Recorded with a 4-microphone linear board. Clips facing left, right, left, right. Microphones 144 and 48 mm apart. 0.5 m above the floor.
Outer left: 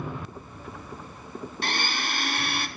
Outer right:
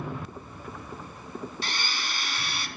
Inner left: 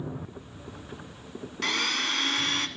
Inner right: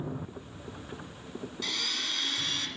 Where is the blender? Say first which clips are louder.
Outer left 5 dB, inner left 8 dB; 55° left (ahead or behind), 0.6 m.